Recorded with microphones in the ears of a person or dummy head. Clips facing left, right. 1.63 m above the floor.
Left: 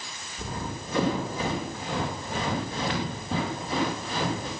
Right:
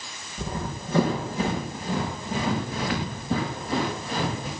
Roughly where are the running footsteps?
Right.